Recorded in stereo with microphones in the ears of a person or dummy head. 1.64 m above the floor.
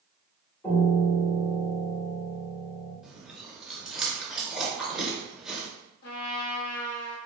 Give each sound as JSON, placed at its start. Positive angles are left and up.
{"t": 0.6, "sound": "a piano", "side_deg": 10, "distance_m": 1.6}
{"t": 3.0, "sound": "chewing", "side_deg": -5, "distance_m": 0.8}
{"t": 6.0, "sound": "a trumpet", "side_deg": 50, "distance_m": 0.8}